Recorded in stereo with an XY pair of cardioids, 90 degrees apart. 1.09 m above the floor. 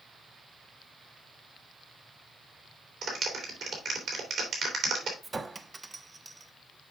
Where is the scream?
I don't hear a scream.